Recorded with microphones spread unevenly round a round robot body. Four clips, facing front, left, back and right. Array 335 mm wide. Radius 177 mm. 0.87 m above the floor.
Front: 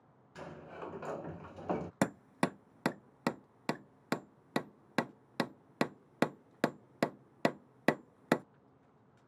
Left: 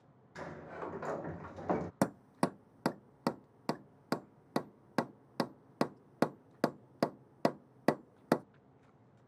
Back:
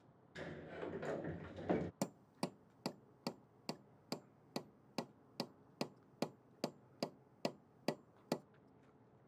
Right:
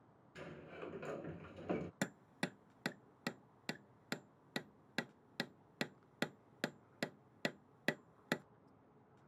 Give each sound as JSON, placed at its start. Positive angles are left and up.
{"t": 0.3, "sound": "a sliding door", "azimuth_deg": 65}
{"t": 2.0, "sound": "hammering", "azimuth_deg": 40}